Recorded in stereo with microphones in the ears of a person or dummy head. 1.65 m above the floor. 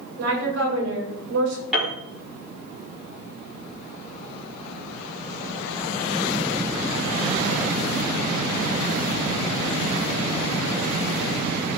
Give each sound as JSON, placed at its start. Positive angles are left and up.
{"t": 0.2, "sound": "a woman speaking", "side_deg": -75, "distance_m": 6.0}
{"t": 1.7, "sound": "a piano", "side_deg": 0, "distance_m": 4.0}